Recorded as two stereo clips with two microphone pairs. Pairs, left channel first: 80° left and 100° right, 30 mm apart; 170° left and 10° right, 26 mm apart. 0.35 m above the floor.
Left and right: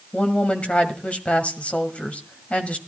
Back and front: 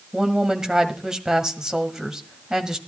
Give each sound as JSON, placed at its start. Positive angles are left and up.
{"t": 0.1, "sound": "a woman speaking", "azimuth_deg": 55, "distance_m": 1.7}